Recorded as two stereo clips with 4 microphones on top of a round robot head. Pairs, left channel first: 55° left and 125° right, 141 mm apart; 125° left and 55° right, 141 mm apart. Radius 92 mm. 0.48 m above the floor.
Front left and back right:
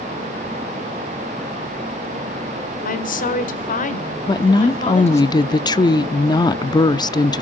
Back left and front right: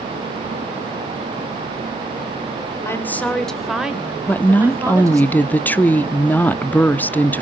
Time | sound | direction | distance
2.9 | a woman speaking | 55° left | 1.8 m
4.3 | a woman speaking | 60° left | 0.7 m